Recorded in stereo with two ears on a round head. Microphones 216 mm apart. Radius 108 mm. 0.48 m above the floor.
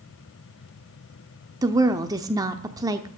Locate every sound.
1.6 s a woman speaking: 15° right (ahead or behind), 0.7 m